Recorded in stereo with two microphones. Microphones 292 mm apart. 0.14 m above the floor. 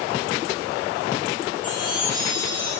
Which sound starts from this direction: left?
A chime, at 1.6 s.